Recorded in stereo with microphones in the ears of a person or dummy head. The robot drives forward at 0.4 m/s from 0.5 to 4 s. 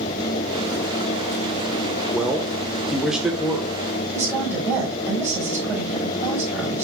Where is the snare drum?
No snare drum in this recording.